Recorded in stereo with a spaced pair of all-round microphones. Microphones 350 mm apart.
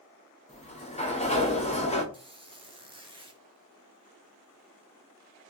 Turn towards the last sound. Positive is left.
turn(degrees=-15)  # may be behind; listen again after turning